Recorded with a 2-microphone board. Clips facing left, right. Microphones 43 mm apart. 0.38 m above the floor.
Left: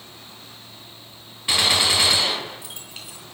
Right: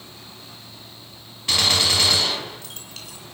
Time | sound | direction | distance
1.5 | a gunshot | 15° left (ahead or behind) | 2.5 m